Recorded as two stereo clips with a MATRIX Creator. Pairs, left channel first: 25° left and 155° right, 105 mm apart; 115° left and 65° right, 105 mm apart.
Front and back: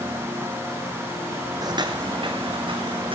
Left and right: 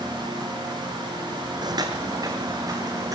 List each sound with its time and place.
1.6 s footsteps: 110° right, 0.9 m; by 3.1 s 125° right, 2.5 m